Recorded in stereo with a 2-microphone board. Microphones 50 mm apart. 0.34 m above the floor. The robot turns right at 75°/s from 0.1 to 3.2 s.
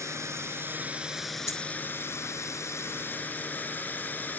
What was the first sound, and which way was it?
A drone, 90° right.